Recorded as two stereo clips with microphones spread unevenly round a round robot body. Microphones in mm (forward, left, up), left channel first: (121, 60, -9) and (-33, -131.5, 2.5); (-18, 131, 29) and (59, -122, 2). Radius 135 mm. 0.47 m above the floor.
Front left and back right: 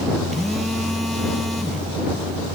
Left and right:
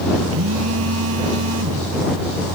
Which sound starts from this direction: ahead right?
A phone buzzing, at 0.3 s.